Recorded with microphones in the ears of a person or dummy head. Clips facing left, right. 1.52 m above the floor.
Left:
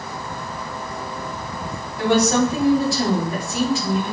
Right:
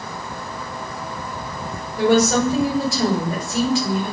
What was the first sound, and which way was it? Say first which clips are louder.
A woman speaking: right 1 dB; 45° right (ahead or behind).